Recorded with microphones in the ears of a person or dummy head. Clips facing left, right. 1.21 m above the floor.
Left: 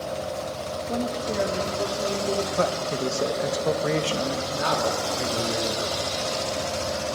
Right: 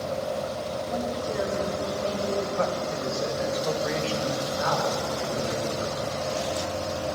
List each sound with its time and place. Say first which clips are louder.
0.9 s a woman speaking: left 3 dB; 40° left (ahead or behind), 1.2 m; by 2.5 s 55° left (ahead or behind), 3 m
2.6 s a man speaking: left 2 dB; 50° left (ahead or behind), 1.1 m
4.5 s a man speaking: left 3 dB; 45° left (ahead or behind), 2.5 m